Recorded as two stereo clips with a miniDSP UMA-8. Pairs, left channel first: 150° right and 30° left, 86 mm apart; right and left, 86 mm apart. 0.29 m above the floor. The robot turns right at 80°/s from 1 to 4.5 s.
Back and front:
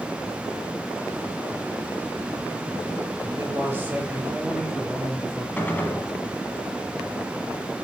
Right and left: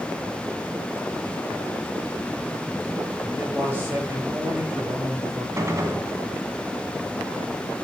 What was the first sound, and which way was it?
A man speaking, 20° left.